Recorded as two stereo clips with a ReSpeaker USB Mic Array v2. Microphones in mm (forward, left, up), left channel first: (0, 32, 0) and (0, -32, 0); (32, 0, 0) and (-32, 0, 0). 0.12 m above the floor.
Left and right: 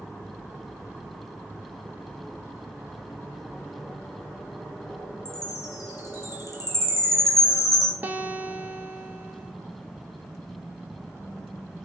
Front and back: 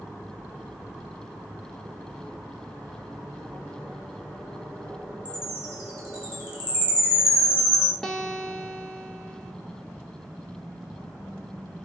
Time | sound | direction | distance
5.2 | a chime | 110° left | 1.9 m
8.0 | a guitar | 75° right | 0.6 m